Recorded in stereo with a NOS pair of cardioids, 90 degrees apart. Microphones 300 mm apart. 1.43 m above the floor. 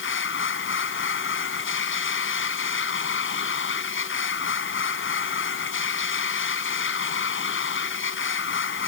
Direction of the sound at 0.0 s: 40° left.